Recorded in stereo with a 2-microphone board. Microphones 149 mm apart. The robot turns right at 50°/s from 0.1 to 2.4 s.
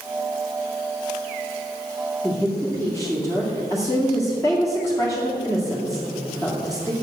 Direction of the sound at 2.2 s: 10° left (ahead or behind).